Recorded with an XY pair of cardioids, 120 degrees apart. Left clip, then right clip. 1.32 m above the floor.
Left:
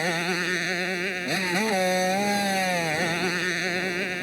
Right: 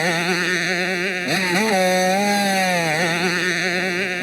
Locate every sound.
0.0 s a motorcycle: 35° right